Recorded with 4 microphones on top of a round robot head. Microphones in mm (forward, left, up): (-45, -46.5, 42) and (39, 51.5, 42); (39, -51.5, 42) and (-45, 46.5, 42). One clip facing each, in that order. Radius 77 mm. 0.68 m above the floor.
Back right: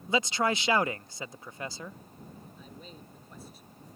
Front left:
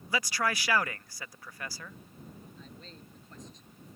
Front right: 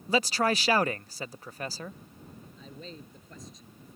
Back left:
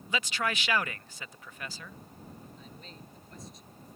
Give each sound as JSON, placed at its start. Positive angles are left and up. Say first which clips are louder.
{"t": 0.1, "sound": "a man speaking", "louder": "back right 4 dB, front right 7 dB", "azimuth_deg": -75}
{"t": 2.6, "sound": "a man speaking", "louder": "back right 2 dB, front right 4 dB", "azimuth_deg": -50}